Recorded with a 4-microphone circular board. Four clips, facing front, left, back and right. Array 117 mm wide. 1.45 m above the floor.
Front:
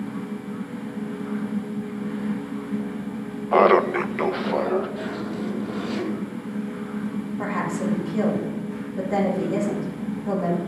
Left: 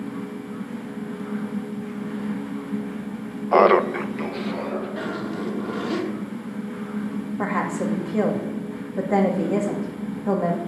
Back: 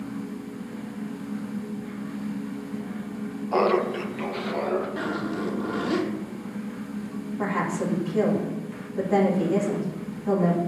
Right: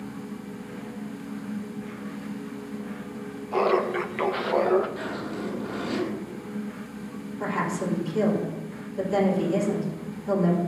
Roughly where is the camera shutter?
No camera shutter in this recording.